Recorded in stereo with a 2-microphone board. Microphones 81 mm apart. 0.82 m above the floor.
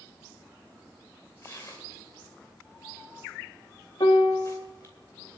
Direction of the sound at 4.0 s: 70° left (ahead or behind).